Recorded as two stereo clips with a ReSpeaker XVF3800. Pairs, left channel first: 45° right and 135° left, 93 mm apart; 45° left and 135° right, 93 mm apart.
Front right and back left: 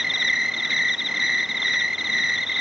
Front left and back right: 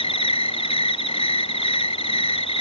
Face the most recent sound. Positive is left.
turn(degrees=45)